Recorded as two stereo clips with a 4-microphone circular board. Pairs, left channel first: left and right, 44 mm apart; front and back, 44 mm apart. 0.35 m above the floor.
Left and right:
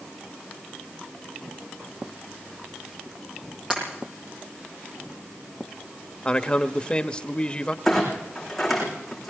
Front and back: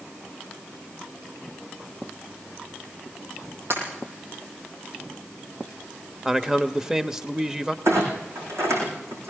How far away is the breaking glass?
About 7.5 m.